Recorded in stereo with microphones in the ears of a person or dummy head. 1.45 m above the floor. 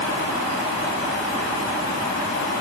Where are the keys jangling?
I don't hear keys jangling.